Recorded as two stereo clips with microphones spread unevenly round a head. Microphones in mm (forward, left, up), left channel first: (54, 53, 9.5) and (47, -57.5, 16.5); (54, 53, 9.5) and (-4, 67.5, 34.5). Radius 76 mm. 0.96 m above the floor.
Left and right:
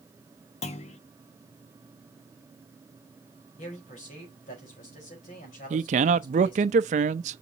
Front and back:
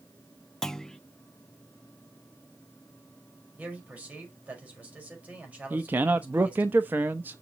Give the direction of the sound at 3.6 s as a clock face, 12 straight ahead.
9 o'clock.